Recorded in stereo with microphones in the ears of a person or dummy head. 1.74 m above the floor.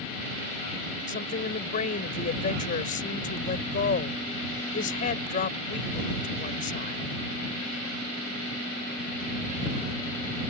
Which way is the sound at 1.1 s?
50° left (ahead or behind).